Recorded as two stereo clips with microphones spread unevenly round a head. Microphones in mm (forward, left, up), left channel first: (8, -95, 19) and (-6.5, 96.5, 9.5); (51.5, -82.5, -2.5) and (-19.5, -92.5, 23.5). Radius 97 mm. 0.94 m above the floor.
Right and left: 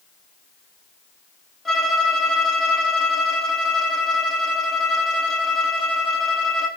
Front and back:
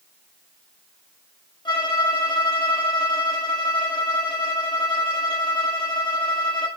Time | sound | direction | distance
1.6 | a violin | 5° left | 0.9 m